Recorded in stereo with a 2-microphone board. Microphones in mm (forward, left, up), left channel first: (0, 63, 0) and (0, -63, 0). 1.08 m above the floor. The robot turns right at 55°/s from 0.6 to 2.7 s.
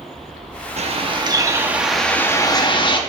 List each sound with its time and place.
0.8 s a bird: 65° right, 0.8 m; by 3.0 s 40° left, 0.8 m